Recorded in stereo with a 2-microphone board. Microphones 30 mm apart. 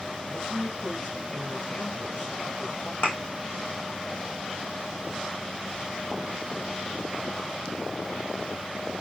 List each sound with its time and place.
0.3 s a man speaking: 55° left (ahead or behind), 6.5 m
3.0 s a thud: 80° left, 3.5 m